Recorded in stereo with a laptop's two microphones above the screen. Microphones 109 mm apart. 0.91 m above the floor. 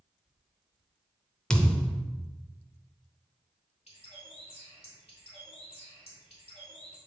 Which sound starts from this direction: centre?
A thud, at 1.5 s.